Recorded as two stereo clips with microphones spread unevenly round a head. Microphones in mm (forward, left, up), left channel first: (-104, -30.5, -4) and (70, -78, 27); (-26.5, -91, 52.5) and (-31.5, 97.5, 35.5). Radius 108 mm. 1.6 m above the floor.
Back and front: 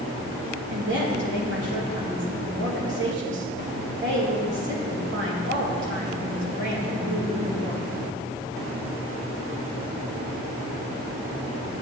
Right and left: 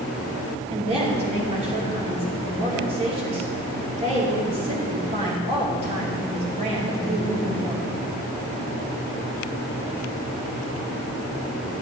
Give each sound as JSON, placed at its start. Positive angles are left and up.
{"t": 0.7, "sound": "a woman speaking", "azimuth_deg": 25, "distance_m": 2.5}